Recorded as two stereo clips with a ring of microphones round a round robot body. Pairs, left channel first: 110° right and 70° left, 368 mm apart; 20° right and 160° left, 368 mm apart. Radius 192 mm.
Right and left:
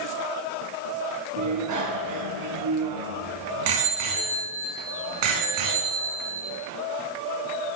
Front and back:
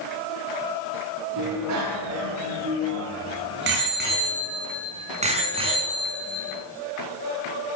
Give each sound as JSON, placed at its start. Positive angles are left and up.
{"t": 1.4, "sound": "a bicycle bell", "azimuth_deg": 115, "distance_m": 5.5}